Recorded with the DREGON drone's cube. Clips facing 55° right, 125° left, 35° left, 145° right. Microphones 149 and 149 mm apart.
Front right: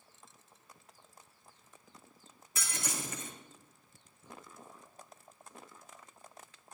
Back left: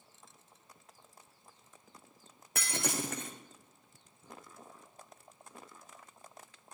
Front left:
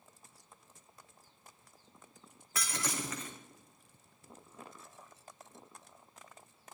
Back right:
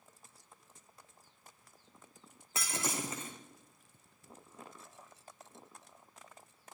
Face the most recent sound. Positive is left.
turn(degrees=150)